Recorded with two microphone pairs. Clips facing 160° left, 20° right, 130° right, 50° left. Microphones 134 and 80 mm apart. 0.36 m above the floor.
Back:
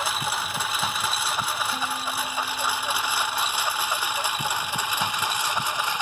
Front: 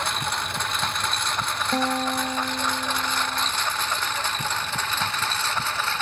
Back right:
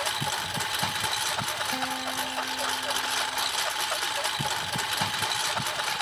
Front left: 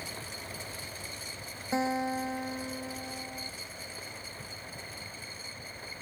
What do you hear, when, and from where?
0.0 s a lawn mower: 120° right; by 6.0 s 125° right
1.7 s a guitar: 20° right